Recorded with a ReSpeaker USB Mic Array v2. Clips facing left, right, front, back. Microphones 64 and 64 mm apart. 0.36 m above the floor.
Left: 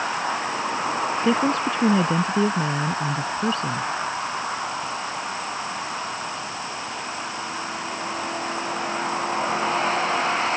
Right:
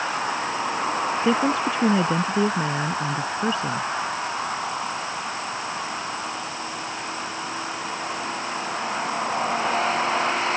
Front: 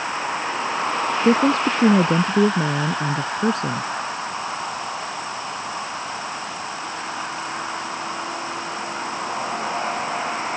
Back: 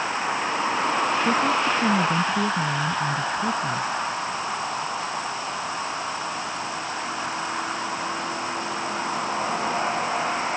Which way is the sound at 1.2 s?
5° right.